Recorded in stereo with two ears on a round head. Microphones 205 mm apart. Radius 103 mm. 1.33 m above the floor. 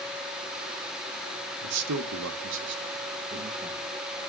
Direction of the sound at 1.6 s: 85° right.